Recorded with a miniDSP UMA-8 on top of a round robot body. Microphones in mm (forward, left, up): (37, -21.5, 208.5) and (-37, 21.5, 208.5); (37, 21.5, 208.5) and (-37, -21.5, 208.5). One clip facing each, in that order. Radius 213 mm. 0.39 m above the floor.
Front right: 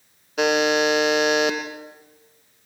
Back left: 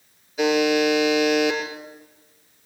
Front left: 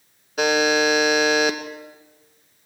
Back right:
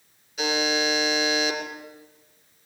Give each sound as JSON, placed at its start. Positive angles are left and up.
{"t": 0.4, "sound": "a buzzer", "azimuth_deg": -10, "distance_m": 2.5}